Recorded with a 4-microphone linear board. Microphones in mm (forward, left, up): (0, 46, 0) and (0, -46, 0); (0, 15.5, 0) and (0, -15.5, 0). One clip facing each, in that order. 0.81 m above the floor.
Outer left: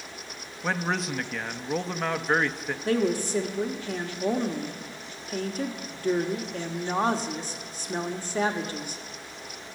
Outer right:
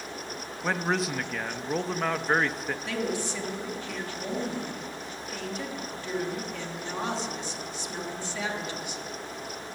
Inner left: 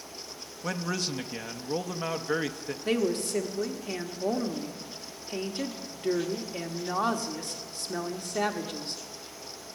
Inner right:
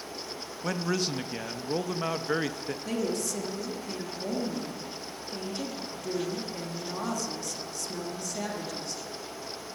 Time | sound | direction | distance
0.6 | a man speaking | centre (ahead or behind) | 0.5 m
2.9 | a woman speaking | 40° left (ahead or behind) | 1.3 m